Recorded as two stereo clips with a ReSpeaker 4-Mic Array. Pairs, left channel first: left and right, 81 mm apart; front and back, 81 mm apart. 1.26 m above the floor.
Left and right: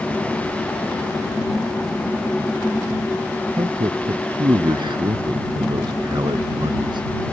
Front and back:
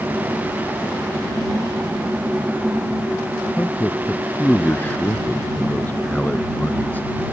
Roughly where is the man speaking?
Right.